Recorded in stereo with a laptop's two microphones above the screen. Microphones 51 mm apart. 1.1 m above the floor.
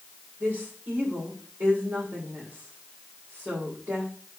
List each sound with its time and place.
0.4 s a woman speaking: 50° right (ahead or behind), 3.5 m